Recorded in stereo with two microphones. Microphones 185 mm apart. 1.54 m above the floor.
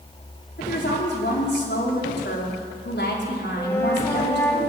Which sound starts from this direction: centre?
A flute, at 3.6 s.